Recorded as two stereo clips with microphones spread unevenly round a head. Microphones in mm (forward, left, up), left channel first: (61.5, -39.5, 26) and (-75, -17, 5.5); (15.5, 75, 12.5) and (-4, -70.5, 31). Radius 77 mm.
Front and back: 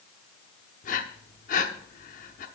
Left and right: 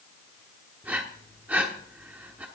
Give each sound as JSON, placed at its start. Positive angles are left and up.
{"t": 0.8, "sound": "breathing", "azimuth_deg": -20, "distance_m": 1.0}